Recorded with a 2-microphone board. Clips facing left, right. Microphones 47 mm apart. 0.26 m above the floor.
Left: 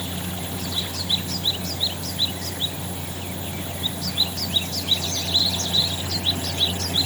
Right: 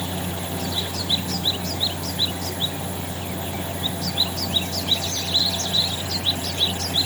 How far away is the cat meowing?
No cat meowing in this recording.